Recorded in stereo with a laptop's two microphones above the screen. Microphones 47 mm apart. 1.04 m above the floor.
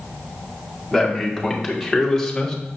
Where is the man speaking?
5° right (ahead or behind), 3 m; by 2.6 s 10° left (ahead or behind), 1.6 m.